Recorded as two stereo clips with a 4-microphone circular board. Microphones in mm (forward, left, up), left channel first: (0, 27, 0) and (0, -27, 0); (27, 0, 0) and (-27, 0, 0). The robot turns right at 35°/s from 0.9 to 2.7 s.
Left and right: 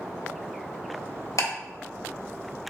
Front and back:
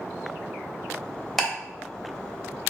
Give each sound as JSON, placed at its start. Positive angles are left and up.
{"t": 1.4, "sound": "ticking", "azimuth_deg": 85, "distance_m": 0.9}